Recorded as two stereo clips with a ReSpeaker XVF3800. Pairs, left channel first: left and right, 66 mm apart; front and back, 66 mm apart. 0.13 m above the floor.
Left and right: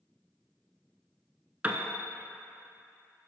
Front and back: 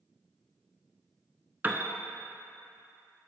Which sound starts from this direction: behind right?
A piano, at 1.6 s.